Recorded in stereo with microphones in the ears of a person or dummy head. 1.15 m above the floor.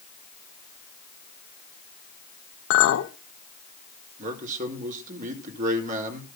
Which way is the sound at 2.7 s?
80° left.